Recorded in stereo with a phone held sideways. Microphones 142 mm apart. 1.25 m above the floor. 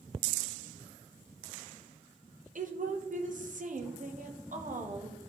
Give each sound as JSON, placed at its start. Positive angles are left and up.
{"t": 2.5, "sound": "a woman speaking", "side_deg": -65, "distance_m": 1.0}